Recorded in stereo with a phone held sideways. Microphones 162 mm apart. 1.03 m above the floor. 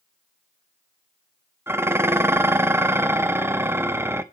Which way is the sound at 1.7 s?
15° right (ahead or behind).